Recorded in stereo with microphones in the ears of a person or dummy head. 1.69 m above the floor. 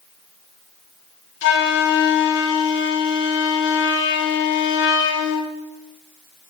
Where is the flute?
65° left (ahead or behind), 1.9 m.